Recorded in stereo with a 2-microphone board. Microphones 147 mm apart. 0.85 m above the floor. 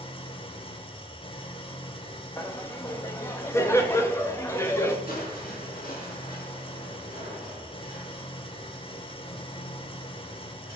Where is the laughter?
15° left (ahead or behind), 0.9 m.